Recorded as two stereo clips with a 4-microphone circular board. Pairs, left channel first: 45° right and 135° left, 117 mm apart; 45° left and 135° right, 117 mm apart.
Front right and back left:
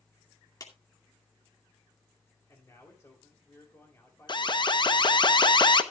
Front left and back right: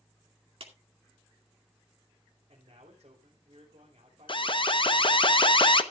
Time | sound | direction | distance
0.6 | a clap | 100° right | 2 m
2.5 | a man speaking | 105° right | 3 m
4.3 | an alarm | straight ahead | 0.8 m